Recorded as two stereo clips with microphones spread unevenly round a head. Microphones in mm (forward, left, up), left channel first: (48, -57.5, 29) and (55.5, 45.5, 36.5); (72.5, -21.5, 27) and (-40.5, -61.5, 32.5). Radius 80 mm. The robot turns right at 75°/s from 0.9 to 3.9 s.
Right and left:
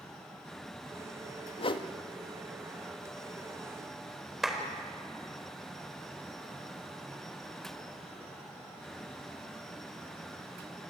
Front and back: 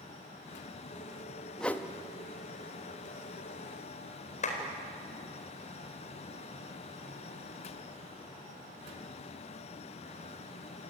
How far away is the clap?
About 4.5 m.